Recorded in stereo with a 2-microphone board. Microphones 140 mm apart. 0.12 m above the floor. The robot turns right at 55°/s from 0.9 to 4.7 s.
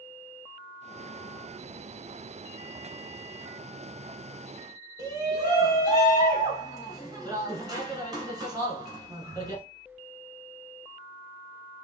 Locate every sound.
5.0 s a shout: 30° right (ahead or behind), 1.4 m